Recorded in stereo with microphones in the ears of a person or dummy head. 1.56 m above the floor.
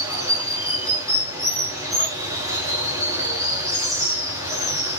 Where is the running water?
15° right (ahead or behind), 1.2 m.